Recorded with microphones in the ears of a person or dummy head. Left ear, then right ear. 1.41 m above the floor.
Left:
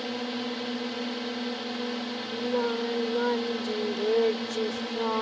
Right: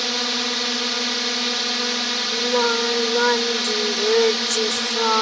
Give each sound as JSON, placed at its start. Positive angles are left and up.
{"t": 0.0, "sound": "a drone", "side_deg": -60}
{"t": 2.3, "sound": "singing", "side_deg": -65}